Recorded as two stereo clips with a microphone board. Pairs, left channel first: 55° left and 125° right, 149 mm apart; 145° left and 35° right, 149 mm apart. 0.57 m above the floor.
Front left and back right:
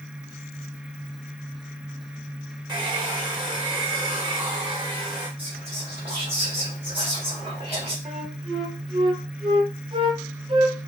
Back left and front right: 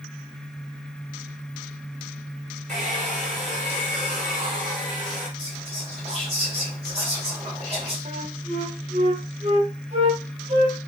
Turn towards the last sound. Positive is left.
turn(degrees=-75)